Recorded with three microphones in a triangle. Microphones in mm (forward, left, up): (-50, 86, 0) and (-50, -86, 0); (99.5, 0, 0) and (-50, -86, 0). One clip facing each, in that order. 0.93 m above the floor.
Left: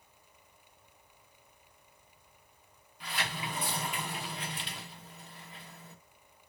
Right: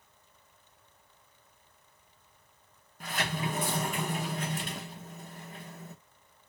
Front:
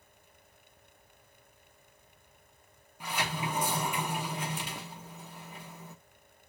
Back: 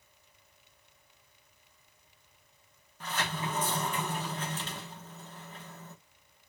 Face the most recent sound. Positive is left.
turn(degrees=-50)